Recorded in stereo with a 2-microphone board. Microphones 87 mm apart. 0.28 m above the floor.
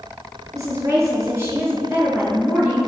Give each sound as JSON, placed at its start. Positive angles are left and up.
{"t": 0.5, "sound": "a woman speaking", "side_deg": -45, "distance_m": 4.0}